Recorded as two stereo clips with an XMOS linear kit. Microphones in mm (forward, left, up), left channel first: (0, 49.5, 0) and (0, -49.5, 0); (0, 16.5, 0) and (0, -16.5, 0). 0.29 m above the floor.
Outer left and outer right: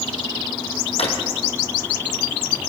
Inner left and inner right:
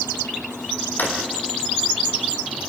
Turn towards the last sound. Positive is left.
turn(degrees=80)